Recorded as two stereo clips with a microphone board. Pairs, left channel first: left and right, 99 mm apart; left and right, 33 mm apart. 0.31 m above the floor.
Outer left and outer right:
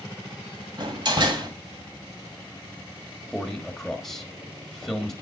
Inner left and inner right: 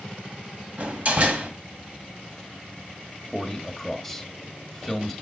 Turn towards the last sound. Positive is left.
turn(degrees=5)  # may be behind; listen again after turning